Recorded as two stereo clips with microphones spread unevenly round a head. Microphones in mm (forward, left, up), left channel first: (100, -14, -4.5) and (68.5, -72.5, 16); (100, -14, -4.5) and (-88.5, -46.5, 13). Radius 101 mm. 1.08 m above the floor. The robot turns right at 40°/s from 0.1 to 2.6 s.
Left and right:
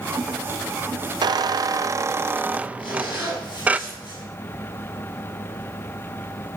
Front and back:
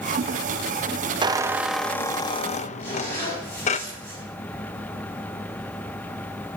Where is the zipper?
95° left, 6.5 m.